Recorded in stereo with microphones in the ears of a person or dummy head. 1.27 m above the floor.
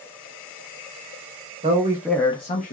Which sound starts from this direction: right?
A man speaking, at 1.6 s.